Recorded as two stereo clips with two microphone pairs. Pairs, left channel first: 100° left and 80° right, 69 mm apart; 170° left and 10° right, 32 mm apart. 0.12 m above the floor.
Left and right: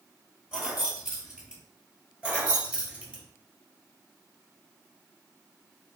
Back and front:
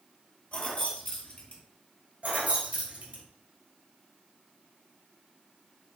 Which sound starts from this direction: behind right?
Keys jangling, at 0.5 s.